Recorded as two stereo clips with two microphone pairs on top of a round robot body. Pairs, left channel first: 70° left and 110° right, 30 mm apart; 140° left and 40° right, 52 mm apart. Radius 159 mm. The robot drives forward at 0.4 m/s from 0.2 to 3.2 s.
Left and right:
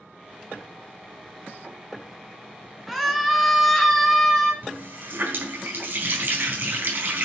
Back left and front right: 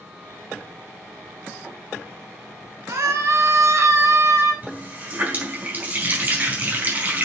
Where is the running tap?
100° right, 4.5 m.